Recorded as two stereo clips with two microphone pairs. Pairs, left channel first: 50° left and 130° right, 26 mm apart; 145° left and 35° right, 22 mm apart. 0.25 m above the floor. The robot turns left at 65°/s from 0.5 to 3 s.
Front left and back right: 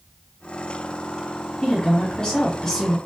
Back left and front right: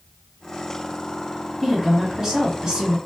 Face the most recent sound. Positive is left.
turn(degrees=-40)